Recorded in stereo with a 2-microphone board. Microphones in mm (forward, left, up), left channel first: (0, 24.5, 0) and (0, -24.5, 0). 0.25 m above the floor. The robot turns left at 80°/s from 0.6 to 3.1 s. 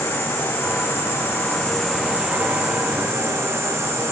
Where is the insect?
105° left, 6 m; by 4.1 s 95° right, 6 m.